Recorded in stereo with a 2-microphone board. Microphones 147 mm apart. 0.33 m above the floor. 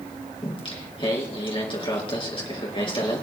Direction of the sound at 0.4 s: 35° left (ahead or behind).